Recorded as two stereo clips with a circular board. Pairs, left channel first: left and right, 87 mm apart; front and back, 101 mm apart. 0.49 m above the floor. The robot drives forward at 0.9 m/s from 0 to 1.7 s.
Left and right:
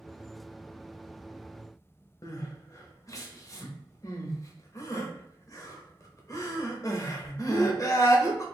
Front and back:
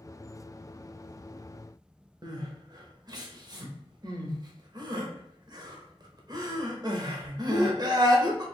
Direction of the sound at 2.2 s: 135° left.